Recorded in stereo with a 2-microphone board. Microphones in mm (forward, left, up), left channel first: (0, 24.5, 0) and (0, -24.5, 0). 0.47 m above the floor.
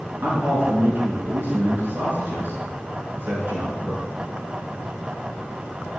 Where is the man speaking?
45° right (ahead or behind), 5.5 m.